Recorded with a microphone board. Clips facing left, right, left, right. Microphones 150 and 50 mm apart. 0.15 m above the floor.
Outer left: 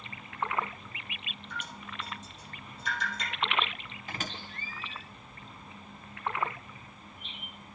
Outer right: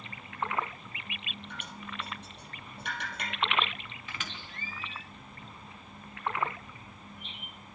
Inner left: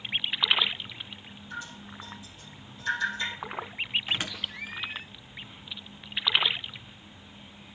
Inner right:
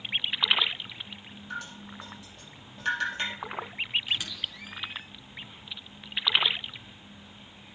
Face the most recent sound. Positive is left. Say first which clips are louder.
# outer left 5 dB, inner left 1 dB
turn(degrees=40)  # may be behind; listen again after turning